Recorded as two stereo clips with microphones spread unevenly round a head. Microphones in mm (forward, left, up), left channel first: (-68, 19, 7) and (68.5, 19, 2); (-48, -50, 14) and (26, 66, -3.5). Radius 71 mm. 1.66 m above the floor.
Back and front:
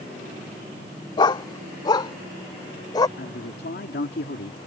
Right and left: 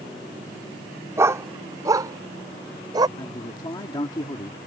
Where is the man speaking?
Straight behind.